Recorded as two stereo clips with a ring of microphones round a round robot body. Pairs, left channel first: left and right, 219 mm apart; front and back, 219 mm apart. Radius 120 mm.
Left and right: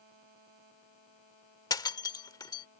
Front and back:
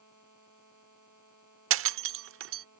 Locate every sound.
1.7 s breaking glass: 165° left